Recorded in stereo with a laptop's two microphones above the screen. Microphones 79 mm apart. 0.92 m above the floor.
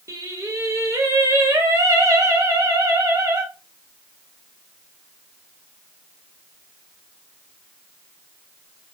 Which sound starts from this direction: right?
Singing, at 0.1 s.